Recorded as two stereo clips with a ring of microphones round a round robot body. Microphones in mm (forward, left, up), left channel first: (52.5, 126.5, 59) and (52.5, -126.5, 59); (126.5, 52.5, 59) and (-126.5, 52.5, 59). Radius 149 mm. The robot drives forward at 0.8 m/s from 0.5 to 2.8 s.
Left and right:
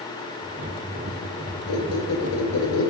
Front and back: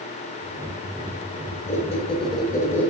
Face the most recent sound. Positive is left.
turn(degrees=85)